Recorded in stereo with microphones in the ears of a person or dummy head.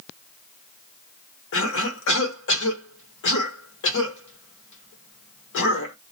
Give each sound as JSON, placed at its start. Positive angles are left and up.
{"t": 1.5, "sound": "a cough", "side_deg": 70, "distance_m": 1.2}